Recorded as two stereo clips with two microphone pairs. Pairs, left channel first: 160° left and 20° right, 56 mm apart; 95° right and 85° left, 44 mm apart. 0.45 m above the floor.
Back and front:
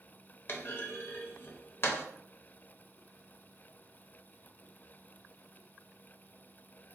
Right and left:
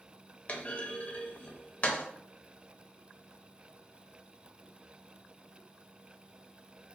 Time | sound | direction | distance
0.5 | a clunk | 150° right | 0.5 m